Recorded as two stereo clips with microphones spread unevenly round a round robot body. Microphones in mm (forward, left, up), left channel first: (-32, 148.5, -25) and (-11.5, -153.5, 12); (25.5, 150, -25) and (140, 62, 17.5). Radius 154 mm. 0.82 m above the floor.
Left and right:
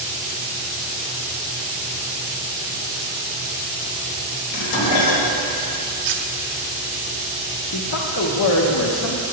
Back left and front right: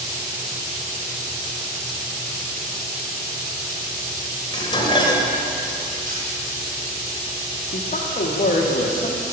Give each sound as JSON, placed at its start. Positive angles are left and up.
{"t": 4.5, "sound": "dishes clattering", "azimuth_deg": 80, "distance_m": 2.0}
{"t": 6.0, "sound": "cutlery clinking", "azimuth_deg": -100, "distance_m": 1.2}
{"t": 7.7, "sound": "a man speaking", "azimuth_deg": 125, "distance_m": 1.2}